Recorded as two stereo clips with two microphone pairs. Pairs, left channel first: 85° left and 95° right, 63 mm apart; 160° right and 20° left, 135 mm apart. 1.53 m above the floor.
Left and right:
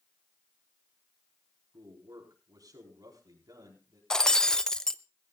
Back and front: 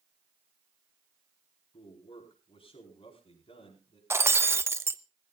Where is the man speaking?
110° right, 4.5 m.